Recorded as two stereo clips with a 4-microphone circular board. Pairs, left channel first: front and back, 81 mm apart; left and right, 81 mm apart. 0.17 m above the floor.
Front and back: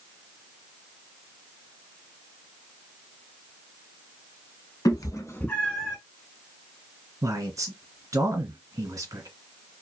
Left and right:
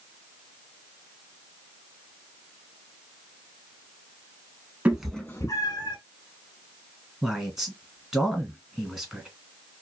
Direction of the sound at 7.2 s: 170° right.